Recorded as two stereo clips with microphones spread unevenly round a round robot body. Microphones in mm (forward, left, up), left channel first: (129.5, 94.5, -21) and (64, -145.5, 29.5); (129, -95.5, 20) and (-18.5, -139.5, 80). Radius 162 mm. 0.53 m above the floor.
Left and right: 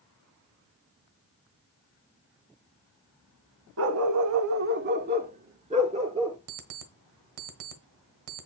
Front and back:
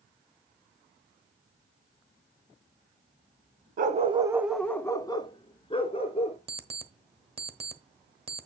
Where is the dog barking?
145° right, 0.8 m; by 6.4 s 40° right, 2.5 m.